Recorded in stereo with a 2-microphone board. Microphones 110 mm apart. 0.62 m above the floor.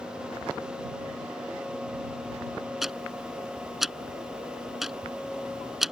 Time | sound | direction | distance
2.8 | ticking | centre (ahead or behind) | ?